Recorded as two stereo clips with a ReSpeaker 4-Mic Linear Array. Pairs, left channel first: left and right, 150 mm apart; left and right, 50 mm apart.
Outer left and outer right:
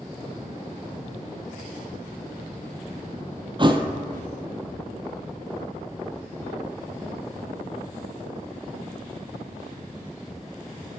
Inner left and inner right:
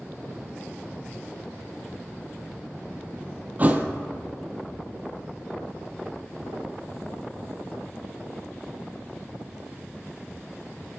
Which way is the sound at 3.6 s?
35° right (ahead or behind).